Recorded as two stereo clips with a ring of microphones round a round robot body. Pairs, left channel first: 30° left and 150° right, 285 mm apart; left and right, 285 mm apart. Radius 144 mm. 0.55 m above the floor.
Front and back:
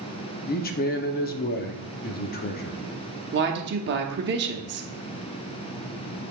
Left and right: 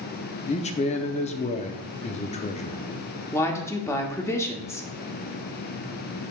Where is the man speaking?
45° left, 0.7 m.